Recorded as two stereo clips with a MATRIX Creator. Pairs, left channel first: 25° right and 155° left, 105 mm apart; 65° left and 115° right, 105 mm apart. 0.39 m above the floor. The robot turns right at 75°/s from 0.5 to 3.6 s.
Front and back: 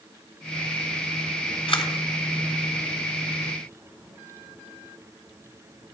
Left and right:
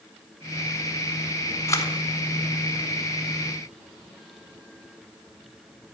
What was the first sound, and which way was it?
A camera shutter, 5° left.